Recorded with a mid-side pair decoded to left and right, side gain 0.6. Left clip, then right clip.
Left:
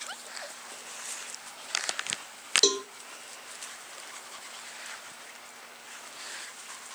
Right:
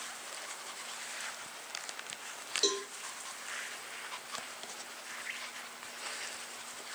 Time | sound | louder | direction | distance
2.6 | a cowbell | left 6 dB | 45° left | 1.1 m